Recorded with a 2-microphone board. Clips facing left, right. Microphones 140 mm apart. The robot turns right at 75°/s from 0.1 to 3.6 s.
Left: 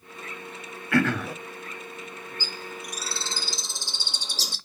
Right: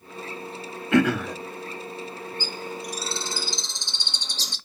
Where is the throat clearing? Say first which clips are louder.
Right 3 dB; 25° right, 0.5 m; by 1.4 s 10° left, 0.5 m.